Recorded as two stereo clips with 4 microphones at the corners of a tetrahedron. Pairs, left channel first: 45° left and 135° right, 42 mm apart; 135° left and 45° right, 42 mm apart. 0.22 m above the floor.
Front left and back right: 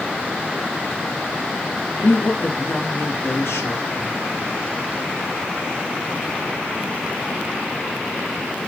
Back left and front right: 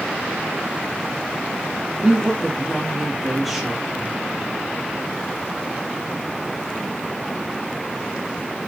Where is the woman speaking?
35° left, 4.5 m; by 4.2 s 50° left, 5 m.